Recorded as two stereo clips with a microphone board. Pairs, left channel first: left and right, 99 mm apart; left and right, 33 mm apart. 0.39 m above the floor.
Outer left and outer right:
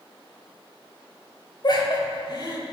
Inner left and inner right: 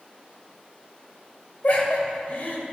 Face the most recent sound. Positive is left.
turn(degrees=45)  # may be behind; listen again after turning